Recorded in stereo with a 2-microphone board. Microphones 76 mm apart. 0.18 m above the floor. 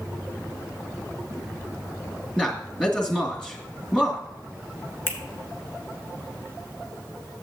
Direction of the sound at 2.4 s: 10° left (ahead or behind).